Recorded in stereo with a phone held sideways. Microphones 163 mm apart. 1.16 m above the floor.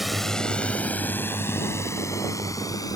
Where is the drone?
Centre (ahead or behind); by 3.0 s 20° left (ahead or behind).